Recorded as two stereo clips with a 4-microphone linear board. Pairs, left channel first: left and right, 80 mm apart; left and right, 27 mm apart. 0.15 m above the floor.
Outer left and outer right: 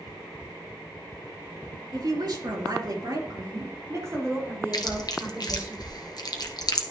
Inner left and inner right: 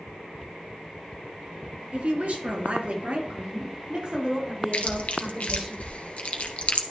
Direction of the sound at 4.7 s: 60° left (ahead or behind).